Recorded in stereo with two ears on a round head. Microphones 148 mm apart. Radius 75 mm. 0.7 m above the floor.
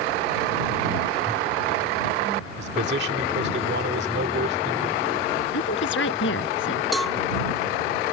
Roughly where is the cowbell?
Centre.